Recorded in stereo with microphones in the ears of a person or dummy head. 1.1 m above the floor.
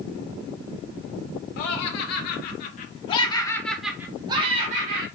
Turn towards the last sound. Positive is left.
turn(degrees=-45)  # may be behind; listen again after turning